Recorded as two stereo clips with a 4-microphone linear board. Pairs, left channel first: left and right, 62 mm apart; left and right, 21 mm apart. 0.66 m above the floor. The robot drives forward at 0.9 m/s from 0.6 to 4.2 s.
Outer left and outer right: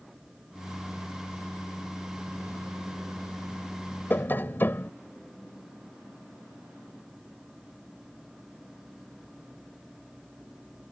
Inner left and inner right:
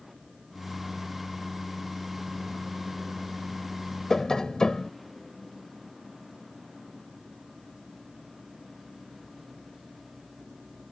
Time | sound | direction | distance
4.1 | tapping | 35° left (ahead or behind) | ?